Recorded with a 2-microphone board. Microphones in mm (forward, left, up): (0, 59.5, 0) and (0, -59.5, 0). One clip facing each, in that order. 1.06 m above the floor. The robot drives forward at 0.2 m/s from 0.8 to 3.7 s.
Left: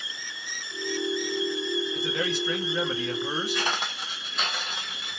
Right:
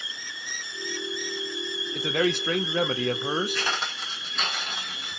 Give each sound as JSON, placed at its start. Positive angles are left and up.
{"t": 1.9, "sound": "a man speaking", "side_deg": -60, "distance_m": 0.6}
{"t": 3.5, "sound": "footsteps", "side_deg": 20, "distance_m": 1.1}